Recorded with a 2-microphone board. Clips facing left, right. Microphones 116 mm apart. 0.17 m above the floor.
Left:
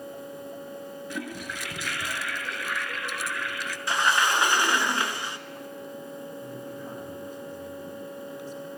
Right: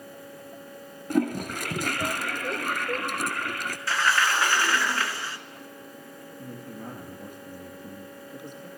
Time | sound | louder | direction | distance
1.1 | a toilet flushing | right 13 dB | 50° right (ahead or behind) | 0.9 m
3.9 | a sliding door | left 1 dB | 20° left (ahead or behind) | 0.7 m
6.4 | a man speaking | left 2 dB | 55° right (ahead or behind) | 2.5 m